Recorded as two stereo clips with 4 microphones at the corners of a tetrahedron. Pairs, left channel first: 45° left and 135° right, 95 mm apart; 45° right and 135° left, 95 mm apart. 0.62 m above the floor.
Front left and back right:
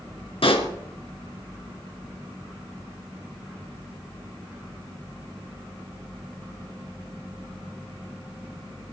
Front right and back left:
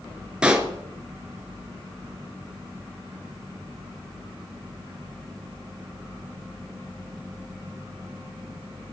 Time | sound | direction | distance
0.4 | a pop | 55° left | 2.0 m